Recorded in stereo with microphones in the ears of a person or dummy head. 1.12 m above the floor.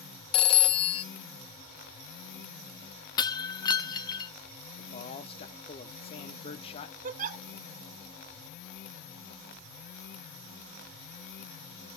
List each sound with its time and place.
0.3 s a phone ringing: 35° left (ahead or behind), 0.7 m
3.2 s breaking glass: 30° left (ahead or behind), 0.7 m
4.8 s a man speaking: 30° left (ahead or behind), 0.8 m
7.0 s a giggle: 50° right (ahead or behind), 0.9 m